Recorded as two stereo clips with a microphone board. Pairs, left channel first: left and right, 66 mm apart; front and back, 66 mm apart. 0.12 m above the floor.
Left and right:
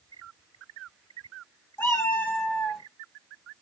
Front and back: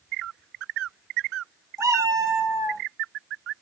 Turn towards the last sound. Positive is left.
turn(degrees=175)